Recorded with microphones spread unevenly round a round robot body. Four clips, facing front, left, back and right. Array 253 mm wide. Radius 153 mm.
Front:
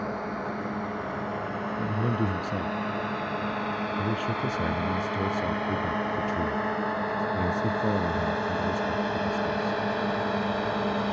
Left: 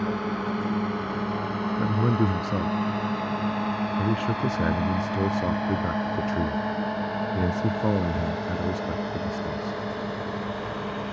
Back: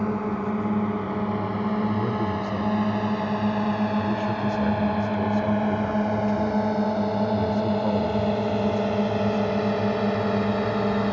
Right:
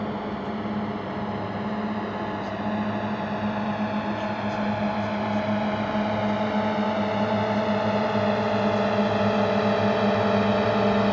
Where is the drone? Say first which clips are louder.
Left 2 dB, back 5 dB; 170° left; by 11.1 s 130° right.